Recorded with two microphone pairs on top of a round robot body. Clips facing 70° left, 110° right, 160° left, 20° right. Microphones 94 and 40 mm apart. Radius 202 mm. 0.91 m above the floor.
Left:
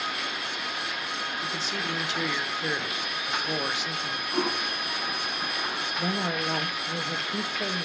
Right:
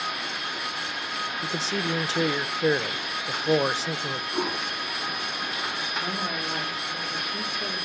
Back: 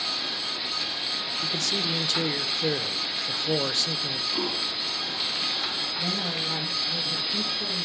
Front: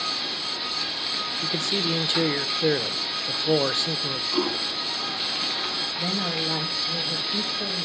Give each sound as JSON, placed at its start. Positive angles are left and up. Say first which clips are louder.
{"t": 1.4, "sound": "a man speaking", "louder": "right 3 dB, front 3 dB", "azimuth_deg": -75, "distance_m": 0.7}
{"t": 4.3, "sound": "a toilet flushing", "louder": "left 3 dB, front 6 dB", "azimuth_deg": 20, "distance_m": 2.5}
{"t": 6.0, "sound": "a woman speaking", "louder": "left 3 dB, front 3 dB", "azimuth_deg": 45, "distance_m": 1.8}